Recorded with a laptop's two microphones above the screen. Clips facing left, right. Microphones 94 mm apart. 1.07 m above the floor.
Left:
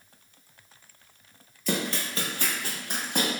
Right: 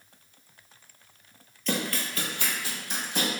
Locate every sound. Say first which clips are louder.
1.7 s running footsteps: left 1 dB; 5° left (ahead or behind), 1.1 m; by 3.3 s 60° left (ahead or behind), 2.5 m